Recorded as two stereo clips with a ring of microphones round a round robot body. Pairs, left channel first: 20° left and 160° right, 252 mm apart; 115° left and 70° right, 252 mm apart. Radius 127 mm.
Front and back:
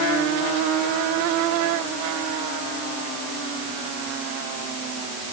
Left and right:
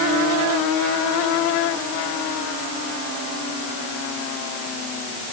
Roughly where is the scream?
I don't hear a scream.